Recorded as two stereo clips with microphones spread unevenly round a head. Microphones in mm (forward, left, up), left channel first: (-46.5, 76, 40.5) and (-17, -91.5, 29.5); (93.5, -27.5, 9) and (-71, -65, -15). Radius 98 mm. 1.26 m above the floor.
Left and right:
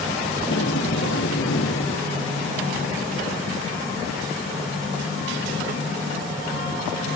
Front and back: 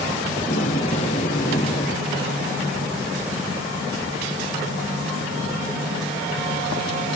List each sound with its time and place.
0.4 s tape being pulled: 70° left